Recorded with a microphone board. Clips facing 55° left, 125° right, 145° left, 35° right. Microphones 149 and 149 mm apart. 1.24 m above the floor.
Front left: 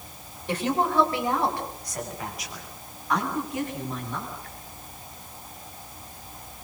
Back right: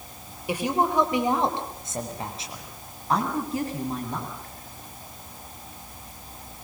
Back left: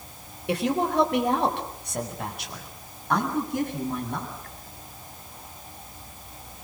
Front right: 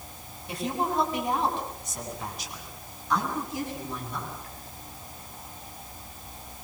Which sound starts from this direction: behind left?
A woman speaking, at 0.5 s.